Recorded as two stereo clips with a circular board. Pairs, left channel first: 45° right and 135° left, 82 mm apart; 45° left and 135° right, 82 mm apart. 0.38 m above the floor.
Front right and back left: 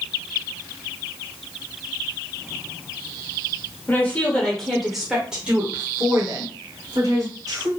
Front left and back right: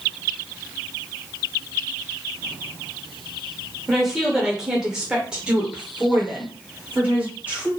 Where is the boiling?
I don't hear boiling.